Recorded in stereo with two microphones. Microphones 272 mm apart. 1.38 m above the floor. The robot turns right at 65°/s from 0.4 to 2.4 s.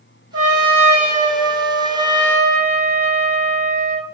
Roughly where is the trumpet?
Ahead right.